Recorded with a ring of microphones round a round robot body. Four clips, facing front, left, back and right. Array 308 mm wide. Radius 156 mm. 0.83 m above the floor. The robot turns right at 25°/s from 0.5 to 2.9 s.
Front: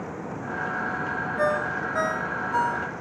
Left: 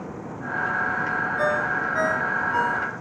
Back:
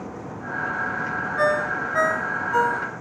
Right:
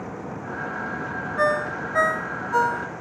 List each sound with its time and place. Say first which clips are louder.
1.4 s a ringtone: right 3 dB, back 3 dB; 140° right, 0.9 m; by 2.9 s 100° right, 0.9 m